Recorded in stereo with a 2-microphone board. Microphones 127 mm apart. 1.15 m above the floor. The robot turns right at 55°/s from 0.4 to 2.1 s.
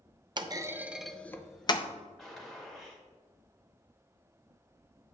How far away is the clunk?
About 0.5 m.